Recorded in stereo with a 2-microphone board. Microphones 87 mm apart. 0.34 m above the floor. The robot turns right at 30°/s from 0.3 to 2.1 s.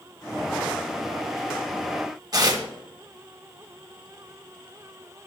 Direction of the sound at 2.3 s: 45° right (ahead or behind).